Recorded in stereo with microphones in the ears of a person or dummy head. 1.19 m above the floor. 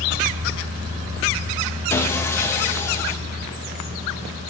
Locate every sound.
1.9 s sawing: 15° left (ahead or behind), 0.7 m